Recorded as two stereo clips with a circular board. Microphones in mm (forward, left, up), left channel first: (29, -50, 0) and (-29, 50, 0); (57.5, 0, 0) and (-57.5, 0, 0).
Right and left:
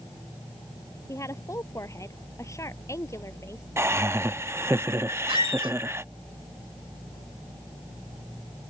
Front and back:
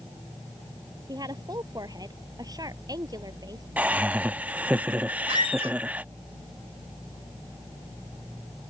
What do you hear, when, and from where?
1.1 s a woman speaking: 125° right
3.8 s laughter: 125° left
5.3 s a squeak: 155° left